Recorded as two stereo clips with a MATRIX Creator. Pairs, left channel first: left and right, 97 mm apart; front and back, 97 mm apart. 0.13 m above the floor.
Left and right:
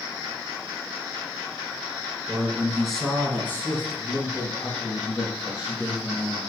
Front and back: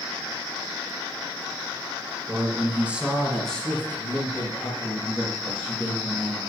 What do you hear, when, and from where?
2.3 s a man speaking: 155° right, 1.9 m; by 6.4 s 45° left, 4.5 m